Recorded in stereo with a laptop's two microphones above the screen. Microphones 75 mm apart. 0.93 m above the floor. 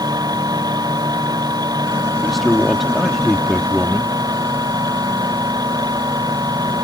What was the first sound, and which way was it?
A machine running, 65° right (ahead or behind).